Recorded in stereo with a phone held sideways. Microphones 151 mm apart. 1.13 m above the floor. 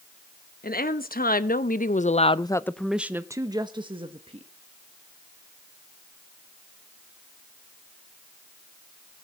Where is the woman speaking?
85° left, 1.3 m; by 4.5 s 40° right (ahead or behind), 1.4 m.